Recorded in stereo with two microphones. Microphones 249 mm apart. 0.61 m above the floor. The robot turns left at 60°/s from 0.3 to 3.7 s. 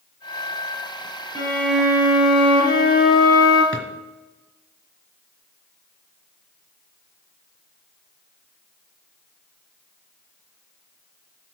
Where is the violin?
25° right, 4 m; by 3.6 s 160° right, 4 m.